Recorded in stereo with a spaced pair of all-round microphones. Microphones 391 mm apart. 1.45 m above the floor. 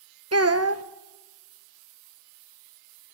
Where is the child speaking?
40° right (ahead or behind), 0.7 m.